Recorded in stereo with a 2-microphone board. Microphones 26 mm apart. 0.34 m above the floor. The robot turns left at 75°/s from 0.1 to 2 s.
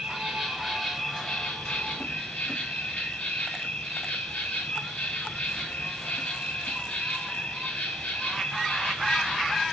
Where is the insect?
115° right, 9.5 m; by 9.7 s 105° left, 9.5 m.